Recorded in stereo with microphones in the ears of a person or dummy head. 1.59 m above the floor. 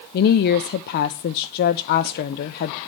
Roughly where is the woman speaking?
Left.